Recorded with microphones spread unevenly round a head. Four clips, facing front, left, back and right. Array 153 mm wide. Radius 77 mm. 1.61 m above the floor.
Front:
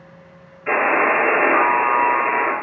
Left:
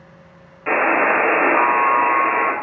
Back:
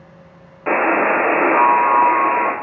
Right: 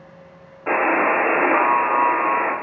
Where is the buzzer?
165° right, 0.7 m.